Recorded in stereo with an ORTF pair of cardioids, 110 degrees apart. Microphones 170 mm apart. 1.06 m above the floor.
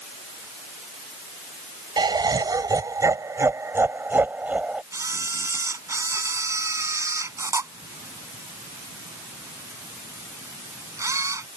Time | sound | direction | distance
2.0 | laughter | 25° right | ?
4.9 | a camera shutter | 20° right | ?